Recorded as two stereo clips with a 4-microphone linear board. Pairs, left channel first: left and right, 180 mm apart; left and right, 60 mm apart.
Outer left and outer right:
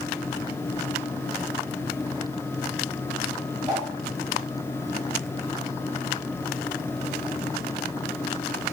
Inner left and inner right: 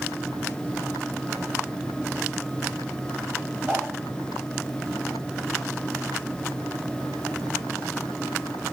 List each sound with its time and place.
3.7 s a whoosh: 20° right (ahead or behind), 1.0 m